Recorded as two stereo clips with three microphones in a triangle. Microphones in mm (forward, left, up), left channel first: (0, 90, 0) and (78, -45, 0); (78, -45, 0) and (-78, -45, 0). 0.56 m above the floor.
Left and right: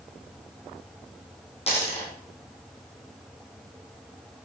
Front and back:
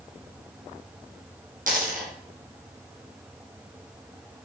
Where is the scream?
No scream in this recording.